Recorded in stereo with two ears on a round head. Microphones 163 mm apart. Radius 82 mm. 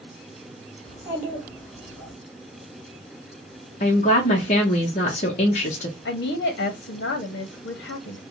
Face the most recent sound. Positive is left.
turn(degrees=65)  # may be behind; listen again after turning